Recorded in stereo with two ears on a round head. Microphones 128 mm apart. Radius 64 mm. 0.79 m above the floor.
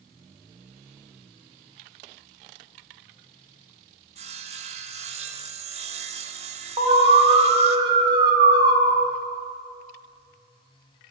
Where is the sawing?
45° right (ahead or behind), 1.8 m.